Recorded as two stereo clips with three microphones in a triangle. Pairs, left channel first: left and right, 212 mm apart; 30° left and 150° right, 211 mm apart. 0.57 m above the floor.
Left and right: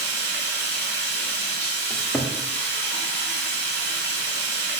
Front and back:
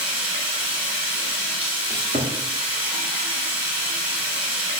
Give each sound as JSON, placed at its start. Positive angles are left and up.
{"t": 0.0, "sound": "running water", "azimuth_deg": -70, "distance_m": 1.9}
{"t": 1.9, "sound": "a cupboard door", "azimuth_deg": 175, "distance_m": 0.6}